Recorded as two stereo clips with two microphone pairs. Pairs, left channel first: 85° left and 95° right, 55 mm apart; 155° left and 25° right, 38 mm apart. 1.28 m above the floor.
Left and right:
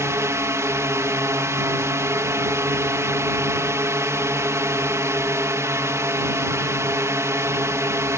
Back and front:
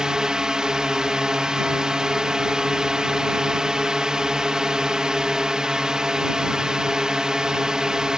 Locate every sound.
0.0 s a drone: 95° right